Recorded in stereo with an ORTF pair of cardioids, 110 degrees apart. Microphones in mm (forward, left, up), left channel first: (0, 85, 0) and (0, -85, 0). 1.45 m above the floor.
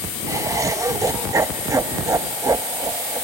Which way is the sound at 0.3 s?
20° right.